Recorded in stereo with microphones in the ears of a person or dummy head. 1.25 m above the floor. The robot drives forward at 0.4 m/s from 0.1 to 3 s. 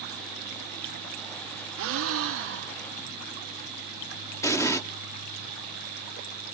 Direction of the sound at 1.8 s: 70° right (ahead or behind).